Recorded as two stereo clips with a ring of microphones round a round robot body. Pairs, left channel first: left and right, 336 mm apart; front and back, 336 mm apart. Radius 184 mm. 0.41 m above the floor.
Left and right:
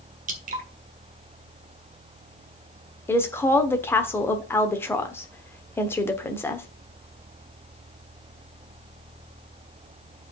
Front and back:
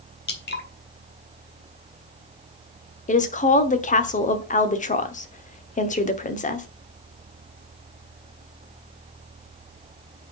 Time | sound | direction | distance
0.3 | dripping | 40° right | 1.6 m
3.1 | a woman speaking | 20° left | 1.0 m